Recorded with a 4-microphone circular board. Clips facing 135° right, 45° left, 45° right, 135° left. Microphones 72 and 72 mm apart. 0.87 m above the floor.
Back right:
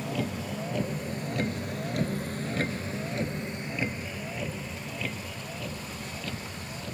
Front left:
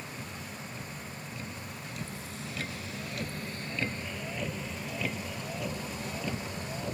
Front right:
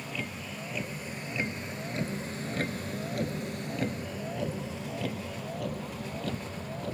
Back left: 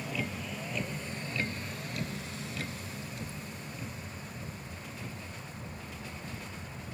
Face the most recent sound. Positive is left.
turn(degrees=-25)